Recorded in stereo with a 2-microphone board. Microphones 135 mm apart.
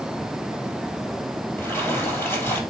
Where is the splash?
15° left (ahead or behind), 3.5 m.